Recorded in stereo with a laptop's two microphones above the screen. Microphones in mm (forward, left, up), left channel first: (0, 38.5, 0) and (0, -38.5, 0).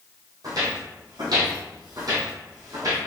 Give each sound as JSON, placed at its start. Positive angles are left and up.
{"t": 0.4, "sound": "footsteps", "side_deg": -55, "distance_m": 2.0}